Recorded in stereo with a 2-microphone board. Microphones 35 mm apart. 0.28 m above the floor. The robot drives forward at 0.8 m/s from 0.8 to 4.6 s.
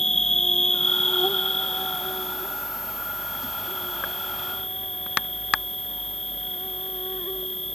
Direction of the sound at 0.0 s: 15° left (ahead or behind).